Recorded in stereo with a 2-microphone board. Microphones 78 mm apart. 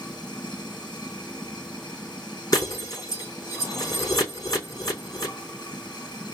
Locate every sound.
0.0 s running water: 65° left (ahead or behind), 1.5 m
2.5 s breaking glass: 45° left (ahead or behind), 4 m